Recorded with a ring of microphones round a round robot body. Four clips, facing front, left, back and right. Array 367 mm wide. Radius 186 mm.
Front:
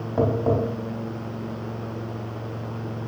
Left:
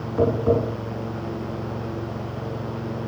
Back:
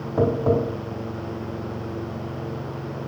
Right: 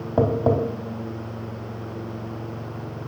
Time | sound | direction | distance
0.2 | tapping | 90° right | 3 m